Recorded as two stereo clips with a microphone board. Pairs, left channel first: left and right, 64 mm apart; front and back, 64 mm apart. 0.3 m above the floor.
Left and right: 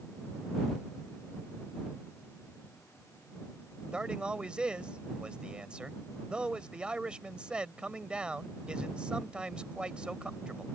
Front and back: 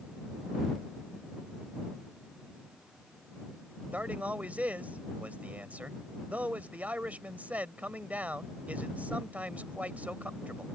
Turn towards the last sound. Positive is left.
turn(degrees=-145)